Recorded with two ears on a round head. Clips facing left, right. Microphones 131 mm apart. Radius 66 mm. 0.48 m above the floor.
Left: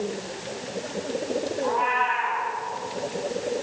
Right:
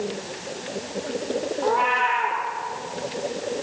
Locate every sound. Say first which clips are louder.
1.6 s a cat meowing: right 3 dB; 70° right (ahead or behind), 6.5 m